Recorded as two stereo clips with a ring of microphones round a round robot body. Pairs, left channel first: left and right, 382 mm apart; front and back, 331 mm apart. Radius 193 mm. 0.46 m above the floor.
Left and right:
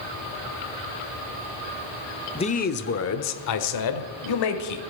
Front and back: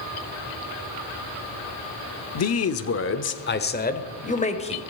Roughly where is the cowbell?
No cowbell in this recording.